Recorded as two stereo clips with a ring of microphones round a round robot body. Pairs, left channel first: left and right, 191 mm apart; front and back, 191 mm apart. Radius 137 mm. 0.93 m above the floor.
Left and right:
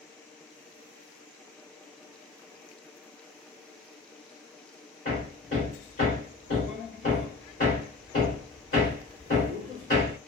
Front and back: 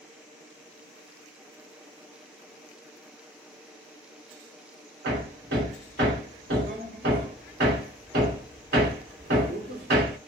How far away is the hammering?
About 2 m.